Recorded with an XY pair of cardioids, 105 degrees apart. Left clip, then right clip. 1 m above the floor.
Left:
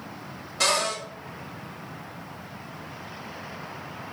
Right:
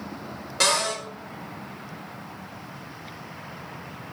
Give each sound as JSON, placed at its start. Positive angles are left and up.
{"t": 0.6, "sound": "a cupboard door", "azimuth_deg": -60, "distance_m": 1.7}